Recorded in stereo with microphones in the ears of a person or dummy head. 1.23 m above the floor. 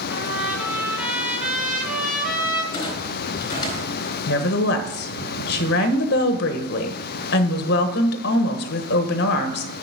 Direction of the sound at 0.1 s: 10° right (ahead or behind).